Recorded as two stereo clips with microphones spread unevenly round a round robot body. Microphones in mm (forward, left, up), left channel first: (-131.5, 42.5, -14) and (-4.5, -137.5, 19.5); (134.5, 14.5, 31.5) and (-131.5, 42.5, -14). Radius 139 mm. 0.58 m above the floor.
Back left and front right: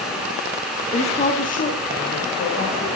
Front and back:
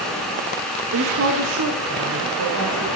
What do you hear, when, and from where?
0.9 s a woman speaking: 175° left, 1.0 m; by 2.9 s 165° left, 2.5 m